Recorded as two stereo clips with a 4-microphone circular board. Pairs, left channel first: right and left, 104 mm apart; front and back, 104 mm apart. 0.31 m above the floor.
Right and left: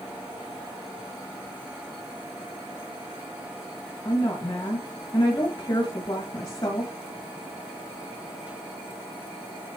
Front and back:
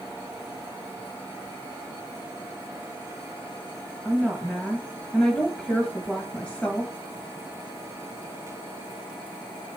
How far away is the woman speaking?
About 1.7 m.